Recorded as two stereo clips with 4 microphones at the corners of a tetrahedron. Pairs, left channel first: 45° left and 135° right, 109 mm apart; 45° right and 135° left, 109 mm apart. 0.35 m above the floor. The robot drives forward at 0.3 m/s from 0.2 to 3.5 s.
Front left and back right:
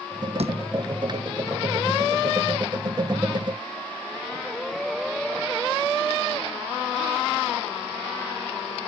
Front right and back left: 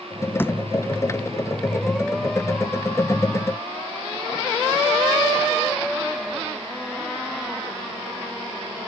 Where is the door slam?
115° right.